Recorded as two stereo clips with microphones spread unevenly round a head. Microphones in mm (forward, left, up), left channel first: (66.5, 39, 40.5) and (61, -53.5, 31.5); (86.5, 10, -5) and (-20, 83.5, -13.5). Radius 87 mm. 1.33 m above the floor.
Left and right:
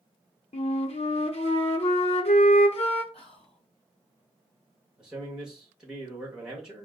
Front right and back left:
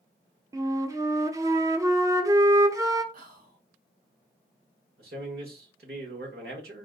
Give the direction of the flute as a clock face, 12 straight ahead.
9 o'clock.